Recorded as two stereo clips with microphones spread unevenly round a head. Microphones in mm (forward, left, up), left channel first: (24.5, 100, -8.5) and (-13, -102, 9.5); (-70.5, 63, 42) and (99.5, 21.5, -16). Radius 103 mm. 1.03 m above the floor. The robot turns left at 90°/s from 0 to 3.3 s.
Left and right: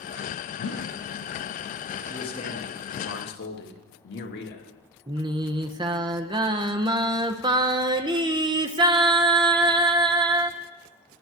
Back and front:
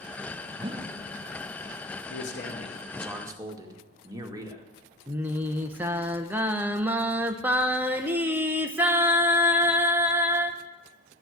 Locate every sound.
0.6 s a whoosh: 60° left, 0.8 m; by 1.0 s 25° left, 0.8 m
2.1 s a man speaking: 155° left, 1.9 m; by 4.7 s 45° left, 1.9 m
5.1 s singing: 45° right, 0.7 m